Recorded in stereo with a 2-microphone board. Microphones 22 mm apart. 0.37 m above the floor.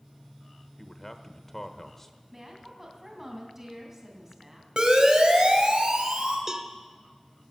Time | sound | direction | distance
0.8 | a man speaking | 20° left (ahead or behind) | 1.1 m
2.3 | a woman speaking | 20° right (ahead or behind) | 3 m
4.8 | a siren | 50° right (ahead or behind) | 2.5 m
6.5 | a cowbell | 25° right (ahead or behind) | 1.0 m